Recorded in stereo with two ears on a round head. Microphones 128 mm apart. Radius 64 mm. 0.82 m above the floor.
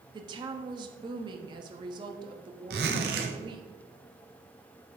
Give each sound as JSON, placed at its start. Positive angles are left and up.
{"t": 0.1, "sound": "a woman speaking", "side_deg": -30, "distance_m": 1.0}
{"t": 2.7, "sound": "a zipper", "side_deg": -80, "distance_m": 1.7}